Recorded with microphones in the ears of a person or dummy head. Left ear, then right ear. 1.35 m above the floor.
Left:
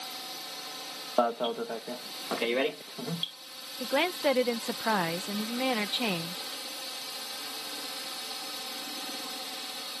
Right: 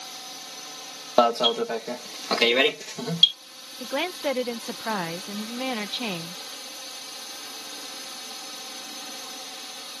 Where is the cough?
I don't hear a cough.